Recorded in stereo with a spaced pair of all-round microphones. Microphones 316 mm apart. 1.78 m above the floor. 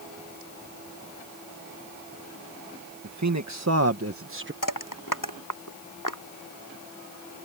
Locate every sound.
3.0 s a man speaking: 60° right (ahead or behind); by 4.5 s 35° right (ahead or behind)
4.6 s crushing: 80° left